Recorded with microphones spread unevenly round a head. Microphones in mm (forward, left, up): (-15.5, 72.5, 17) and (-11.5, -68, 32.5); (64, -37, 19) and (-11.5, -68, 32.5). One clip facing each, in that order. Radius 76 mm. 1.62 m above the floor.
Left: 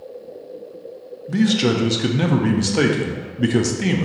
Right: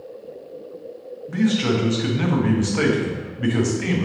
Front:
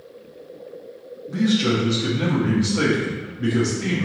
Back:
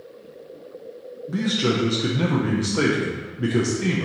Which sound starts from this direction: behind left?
A man speaking, at 1.3 s.